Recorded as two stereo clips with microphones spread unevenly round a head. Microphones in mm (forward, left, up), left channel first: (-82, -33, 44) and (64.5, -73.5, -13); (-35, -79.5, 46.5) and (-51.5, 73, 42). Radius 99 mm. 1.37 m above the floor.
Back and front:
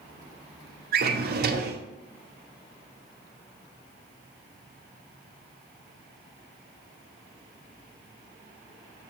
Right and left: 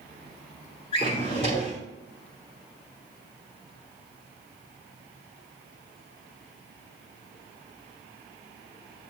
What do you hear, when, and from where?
0.9 s a drawer: 35° right, 0.8 m